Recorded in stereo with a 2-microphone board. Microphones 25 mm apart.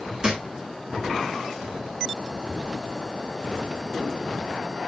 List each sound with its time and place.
0.2 s a thud: 35° right (ahead or behind), 2 m